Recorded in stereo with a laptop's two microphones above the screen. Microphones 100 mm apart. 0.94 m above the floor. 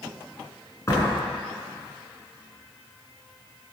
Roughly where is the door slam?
Left.